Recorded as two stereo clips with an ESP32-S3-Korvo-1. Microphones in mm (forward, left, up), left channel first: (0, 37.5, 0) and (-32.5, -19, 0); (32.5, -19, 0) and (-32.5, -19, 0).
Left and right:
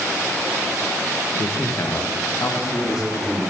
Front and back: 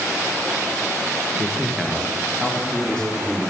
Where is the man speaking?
100° left, 1.1 m; by 3.4 s 80° left, 3.5 m.